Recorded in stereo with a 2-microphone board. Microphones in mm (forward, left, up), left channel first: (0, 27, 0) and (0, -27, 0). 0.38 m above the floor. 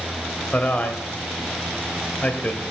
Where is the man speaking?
30° left (ahead or behind), 1.8 m.